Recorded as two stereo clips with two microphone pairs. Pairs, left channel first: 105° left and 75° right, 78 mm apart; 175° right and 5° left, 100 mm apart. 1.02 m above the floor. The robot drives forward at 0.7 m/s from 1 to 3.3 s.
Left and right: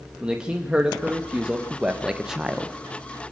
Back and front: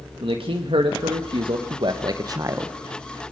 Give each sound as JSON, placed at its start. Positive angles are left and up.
{"t": 0.2, "sound": "a man speaking", "azimuth_deg": 0, "distance_m": 1.7}